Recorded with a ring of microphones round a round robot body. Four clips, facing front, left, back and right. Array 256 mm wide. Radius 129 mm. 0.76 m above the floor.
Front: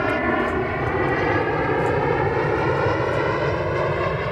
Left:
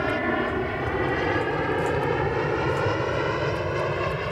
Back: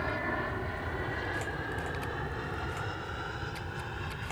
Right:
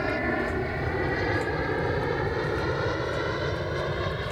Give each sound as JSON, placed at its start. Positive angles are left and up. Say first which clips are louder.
{"t": 0.0, "sound": "an aircraft", "louder": "left 3 dB, front 13 dB", "azimuth_deg": 10}